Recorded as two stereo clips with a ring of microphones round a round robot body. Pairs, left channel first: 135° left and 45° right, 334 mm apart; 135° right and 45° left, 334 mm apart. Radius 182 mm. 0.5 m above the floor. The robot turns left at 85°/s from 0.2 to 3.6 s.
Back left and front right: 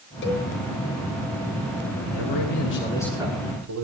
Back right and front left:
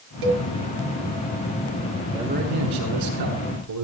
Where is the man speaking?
130° left, 7.5 m; by 3.8 s 5° left, 7.5 m.